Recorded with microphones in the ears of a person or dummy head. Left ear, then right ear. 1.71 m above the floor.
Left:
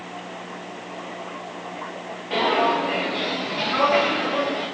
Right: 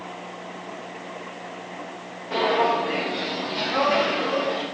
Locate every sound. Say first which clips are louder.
2.3 s footsteps: left 1 dB; 15° left (ahead or behind), 2 m; by 4.6 s 50° right (ahead or behind), 2.5 m